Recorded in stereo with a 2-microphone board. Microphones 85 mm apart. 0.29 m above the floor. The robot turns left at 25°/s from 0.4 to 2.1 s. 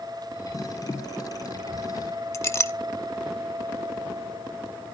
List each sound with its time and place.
2.3 s a clink: 35° left (ahead or behind), 0.5 m